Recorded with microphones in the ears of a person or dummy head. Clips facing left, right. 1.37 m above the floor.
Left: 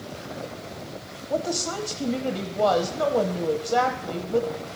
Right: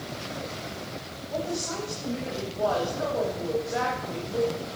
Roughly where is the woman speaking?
Left.